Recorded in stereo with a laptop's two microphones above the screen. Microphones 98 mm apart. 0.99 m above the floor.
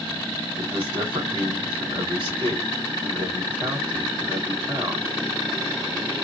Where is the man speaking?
60° right (ahead or behind), 2.5 m.